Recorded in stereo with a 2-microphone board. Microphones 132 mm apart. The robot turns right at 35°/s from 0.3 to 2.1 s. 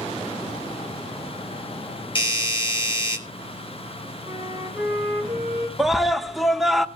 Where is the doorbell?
40° left (ahead or behind), 1.8 m.